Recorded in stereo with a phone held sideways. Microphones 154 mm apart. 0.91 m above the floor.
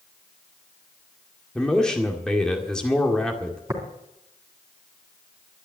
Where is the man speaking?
5° left (ahead or behind), 1.9 m.